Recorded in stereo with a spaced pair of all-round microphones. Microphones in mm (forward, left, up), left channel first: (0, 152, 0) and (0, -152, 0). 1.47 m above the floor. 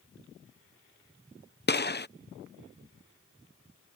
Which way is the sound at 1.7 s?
35° left (ahead or behind).